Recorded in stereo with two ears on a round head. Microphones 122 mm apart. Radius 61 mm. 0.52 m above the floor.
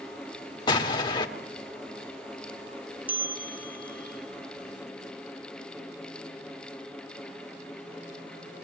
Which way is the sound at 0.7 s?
30° left (ahead or behind).